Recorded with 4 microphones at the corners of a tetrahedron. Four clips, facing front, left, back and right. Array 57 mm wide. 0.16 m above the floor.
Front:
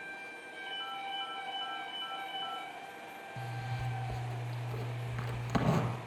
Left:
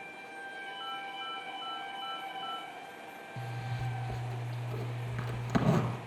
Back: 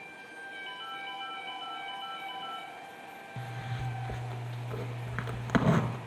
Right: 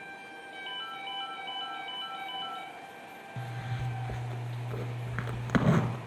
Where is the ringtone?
90° right, 2.5 m.